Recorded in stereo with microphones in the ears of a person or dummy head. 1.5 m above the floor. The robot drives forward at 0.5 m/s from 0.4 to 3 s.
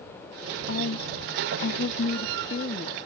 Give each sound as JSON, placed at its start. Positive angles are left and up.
{"t": 0.7, "sound": "a woman speaking", "side_deg": 50}